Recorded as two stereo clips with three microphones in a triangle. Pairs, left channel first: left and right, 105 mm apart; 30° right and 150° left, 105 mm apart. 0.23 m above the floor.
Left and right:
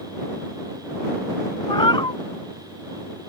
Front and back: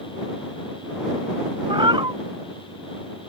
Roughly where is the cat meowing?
Behind left.